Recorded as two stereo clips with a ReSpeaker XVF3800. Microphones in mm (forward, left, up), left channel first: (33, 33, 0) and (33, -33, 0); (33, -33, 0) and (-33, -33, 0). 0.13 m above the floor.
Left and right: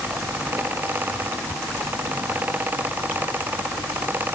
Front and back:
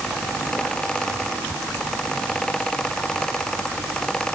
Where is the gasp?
No gasp in this recording.